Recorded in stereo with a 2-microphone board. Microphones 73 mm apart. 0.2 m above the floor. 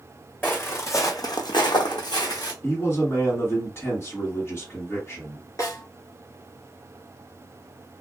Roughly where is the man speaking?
Left.